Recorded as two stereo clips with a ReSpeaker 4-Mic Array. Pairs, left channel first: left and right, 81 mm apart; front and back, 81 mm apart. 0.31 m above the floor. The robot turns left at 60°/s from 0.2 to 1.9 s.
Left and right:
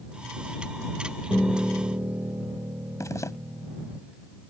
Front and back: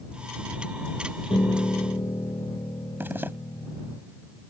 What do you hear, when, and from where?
1.3 s a piano: 5° left; by 4.0 s 30° right
3.0 s a zipper: 125° left